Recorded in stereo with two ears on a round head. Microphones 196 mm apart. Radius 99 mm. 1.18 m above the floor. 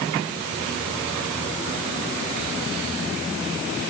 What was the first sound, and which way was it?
Only background noise.